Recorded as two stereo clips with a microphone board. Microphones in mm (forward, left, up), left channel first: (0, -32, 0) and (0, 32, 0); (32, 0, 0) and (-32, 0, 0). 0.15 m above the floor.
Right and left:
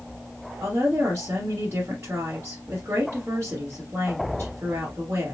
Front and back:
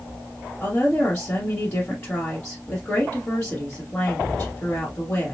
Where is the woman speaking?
60° left, 1.8 m.